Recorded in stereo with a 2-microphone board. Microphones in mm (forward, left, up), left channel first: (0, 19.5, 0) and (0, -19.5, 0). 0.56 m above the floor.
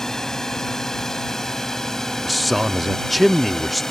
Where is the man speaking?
Centre (ahead or behind).